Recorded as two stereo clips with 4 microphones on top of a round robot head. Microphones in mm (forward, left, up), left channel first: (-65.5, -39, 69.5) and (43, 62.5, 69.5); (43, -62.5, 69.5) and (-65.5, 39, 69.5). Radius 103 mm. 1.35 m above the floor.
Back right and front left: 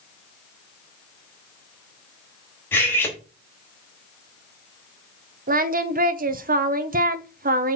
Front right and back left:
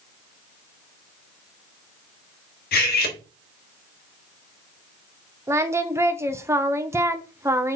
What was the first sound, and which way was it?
Cutlery clinking, 60° right.